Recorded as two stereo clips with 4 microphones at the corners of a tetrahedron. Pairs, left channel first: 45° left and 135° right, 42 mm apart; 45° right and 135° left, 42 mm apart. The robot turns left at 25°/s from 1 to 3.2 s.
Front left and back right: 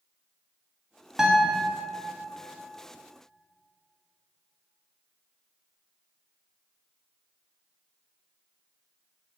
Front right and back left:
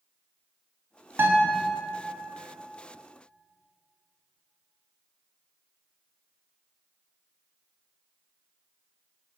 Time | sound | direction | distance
1.2 | a guitar | 145° left | 1.6 m